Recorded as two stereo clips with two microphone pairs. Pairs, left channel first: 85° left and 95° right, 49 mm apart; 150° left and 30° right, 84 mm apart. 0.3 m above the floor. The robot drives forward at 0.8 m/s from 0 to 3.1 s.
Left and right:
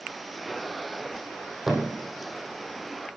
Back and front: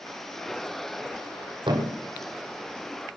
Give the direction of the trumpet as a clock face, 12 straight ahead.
No trumpet in this recording.